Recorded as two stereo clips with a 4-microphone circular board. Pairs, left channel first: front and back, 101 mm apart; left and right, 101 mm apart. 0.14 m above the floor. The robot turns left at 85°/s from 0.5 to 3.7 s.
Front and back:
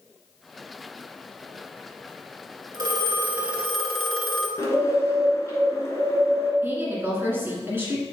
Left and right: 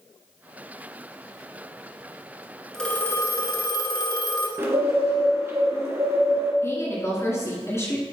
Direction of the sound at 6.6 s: 130° left.